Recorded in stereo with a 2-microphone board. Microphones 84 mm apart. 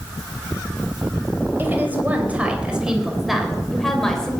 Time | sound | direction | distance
1.6 | a woman speaking | 25° right (ahead or behind) | 3.5 m